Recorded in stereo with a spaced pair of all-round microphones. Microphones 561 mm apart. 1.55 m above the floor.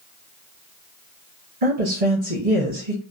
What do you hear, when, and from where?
1.6 s a woman speaking: 70° right (ahead or behind), 1.0 m